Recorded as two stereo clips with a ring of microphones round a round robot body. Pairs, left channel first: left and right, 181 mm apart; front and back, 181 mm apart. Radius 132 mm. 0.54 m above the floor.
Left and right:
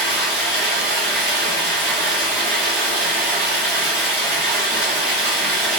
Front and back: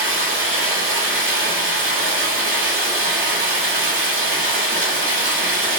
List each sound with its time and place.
0.0 s running water: straight behind, 0.9 m